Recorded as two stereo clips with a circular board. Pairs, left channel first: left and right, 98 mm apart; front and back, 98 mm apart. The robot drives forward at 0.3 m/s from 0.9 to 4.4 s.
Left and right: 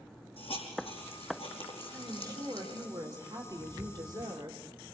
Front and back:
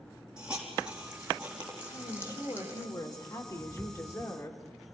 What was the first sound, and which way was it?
A hiss, 100° left.